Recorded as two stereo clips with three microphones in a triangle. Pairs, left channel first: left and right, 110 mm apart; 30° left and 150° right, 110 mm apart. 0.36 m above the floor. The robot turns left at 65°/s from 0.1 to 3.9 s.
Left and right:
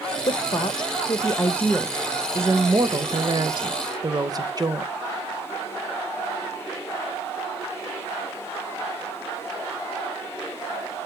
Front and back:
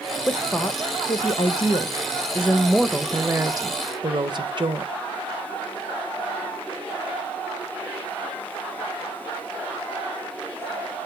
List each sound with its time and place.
0.3 s a woman speaking: 110° left, 1.2 m; by 4.9 s 130° right, 1.2 m